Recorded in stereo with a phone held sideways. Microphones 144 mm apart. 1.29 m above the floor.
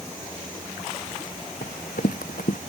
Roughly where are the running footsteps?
Left.